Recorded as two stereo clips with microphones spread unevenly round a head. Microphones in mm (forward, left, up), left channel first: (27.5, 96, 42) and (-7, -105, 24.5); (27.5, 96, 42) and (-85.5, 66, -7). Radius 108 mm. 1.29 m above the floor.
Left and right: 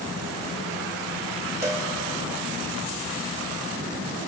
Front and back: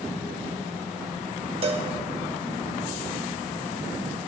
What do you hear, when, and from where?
1.6 s a cowbell: 170° right, 1.0 m